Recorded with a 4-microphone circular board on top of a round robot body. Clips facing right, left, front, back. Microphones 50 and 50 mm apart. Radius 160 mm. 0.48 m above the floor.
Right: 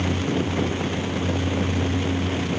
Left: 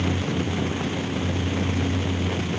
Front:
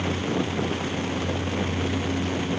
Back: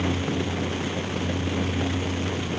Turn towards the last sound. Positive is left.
No sound to turn to.